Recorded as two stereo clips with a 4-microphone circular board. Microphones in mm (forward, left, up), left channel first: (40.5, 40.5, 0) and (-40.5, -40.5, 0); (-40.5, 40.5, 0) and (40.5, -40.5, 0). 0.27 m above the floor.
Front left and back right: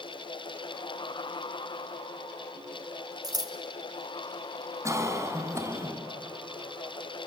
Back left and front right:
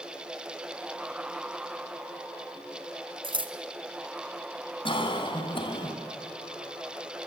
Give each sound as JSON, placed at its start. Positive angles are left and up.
{"t": 3.2, "sound": "scissors", "azimuth_deg": -80, "distance_m": 1.4}
{"t": 4.8, "sound": "a cough", "azimuth_deg": 165, "distance_m": 2.5}